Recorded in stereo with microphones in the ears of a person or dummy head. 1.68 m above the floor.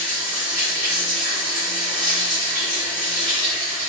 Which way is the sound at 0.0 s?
20° right (ahead or behind).